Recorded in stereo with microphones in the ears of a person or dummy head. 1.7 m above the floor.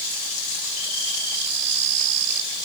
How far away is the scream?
I don't hear a scream.